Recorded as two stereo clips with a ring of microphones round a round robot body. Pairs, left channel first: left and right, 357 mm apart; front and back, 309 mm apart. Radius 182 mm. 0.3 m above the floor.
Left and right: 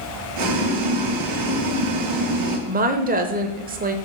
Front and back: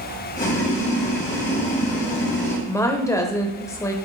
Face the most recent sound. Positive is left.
turn(degrees=-65)